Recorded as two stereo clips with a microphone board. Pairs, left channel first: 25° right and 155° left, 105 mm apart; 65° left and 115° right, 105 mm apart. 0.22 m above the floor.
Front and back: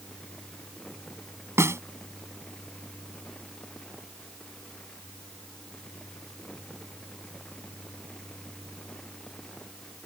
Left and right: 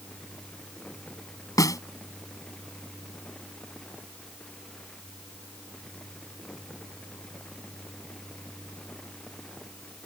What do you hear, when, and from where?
1.6 s a snare drum: 105° left